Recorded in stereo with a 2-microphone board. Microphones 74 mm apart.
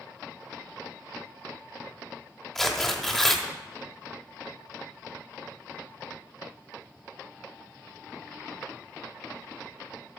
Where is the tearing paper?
5° left (ahead or behind), 1.4 m.